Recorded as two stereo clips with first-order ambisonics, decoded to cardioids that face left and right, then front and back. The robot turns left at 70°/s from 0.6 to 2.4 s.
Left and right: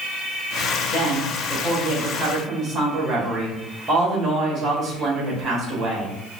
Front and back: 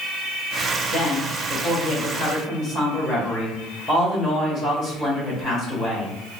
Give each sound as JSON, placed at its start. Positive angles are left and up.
{"t": 0.9, "sound": "a woman speaking", "azimuth_deg": 60, "distance_m": 1.1}